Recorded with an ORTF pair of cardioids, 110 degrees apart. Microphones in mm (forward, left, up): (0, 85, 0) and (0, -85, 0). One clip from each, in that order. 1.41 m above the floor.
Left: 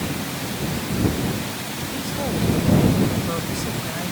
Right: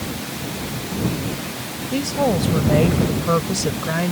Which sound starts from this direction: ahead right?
A woman speaking, at 1.9 s.